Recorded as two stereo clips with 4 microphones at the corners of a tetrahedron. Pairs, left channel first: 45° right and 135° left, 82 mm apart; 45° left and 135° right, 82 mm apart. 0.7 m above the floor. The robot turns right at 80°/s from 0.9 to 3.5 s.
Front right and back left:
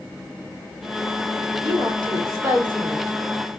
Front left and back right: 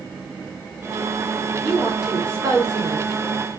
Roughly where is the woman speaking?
Behind left.